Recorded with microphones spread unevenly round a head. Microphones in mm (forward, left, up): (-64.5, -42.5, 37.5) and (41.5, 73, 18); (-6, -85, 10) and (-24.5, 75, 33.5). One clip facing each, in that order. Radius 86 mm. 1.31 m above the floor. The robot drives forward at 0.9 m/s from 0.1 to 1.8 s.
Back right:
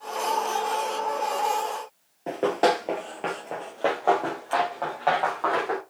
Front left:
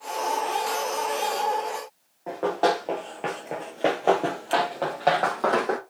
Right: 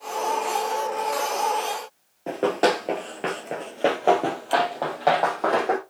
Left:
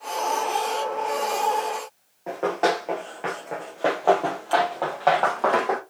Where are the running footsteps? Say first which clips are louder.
Back right 1 dB, right 2 dB; 125° right, 1.5 m; by 5.8 s straight ahead, 3 m.